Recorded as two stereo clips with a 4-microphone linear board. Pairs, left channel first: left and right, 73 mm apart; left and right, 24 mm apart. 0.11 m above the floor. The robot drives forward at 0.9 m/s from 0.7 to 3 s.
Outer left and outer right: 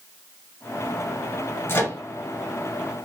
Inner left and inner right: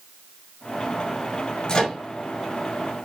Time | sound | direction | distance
1.7 | a microwave | 30° left (ahead or behind) | 1.7 m